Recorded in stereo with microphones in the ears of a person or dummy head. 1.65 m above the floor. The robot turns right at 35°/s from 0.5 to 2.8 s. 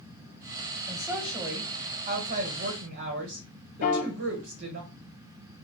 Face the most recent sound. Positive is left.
turn(degrees=45)  # may be behind; listen again after turning